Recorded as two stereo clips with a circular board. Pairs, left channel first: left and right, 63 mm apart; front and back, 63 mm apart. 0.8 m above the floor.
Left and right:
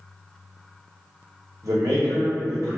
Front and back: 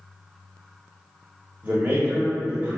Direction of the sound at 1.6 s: 115° right.